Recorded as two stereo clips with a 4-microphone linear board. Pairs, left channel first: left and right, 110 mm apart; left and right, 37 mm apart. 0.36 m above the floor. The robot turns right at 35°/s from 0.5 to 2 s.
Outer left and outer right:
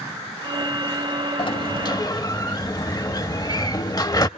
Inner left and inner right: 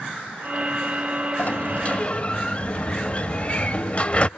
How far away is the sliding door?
About 0.6 m.